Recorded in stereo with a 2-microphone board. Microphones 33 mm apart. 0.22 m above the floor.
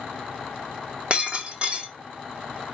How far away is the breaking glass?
About 1.8 m.